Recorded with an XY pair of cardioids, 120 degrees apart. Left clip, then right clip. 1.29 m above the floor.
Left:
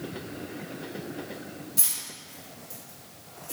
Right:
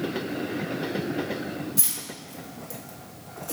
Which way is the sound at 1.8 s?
10° right.